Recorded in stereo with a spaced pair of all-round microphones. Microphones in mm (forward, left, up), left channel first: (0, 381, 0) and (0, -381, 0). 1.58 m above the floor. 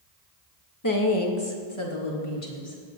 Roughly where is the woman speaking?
Left.